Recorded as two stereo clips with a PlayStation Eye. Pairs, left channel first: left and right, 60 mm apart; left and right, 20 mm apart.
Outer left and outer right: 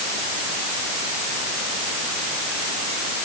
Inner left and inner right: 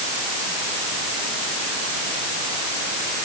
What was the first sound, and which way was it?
Only background noise.